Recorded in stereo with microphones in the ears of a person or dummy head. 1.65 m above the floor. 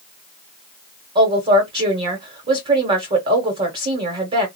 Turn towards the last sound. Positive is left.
turn(degrees=-30)  # may be behind; listen again after turning